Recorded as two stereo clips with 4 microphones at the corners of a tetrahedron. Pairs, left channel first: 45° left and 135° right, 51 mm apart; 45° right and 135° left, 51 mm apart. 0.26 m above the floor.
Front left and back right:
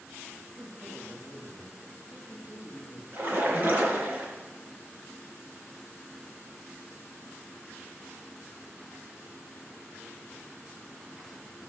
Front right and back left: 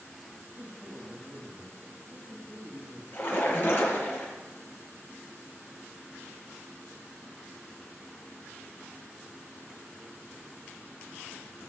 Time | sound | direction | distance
0.5 | a man speaking | straight behind | 1.9 m
3.1 | a splash | 85° right | 3.5 m